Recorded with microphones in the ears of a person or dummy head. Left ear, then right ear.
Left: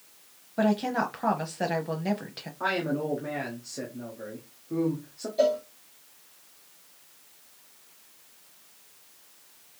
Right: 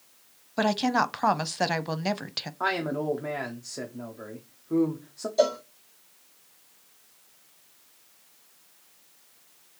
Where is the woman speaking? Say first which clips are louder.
Right 2 dB; 40° right (ahead or behind), 0.6 m.